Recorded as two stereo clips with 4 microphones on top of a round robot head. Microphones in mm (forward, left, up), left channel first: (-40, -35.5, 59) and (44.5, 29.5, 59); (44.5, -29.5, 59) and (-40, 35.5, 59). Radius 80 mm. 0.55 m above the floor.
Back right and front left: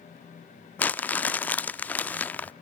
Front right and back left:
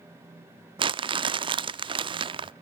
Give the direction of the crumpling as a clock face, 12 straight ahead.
7 o'clock.